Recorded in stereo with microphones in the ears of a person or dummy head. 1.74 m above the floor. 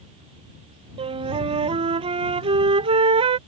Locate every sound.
1.0 s a flute: 30° right (ahead or behind)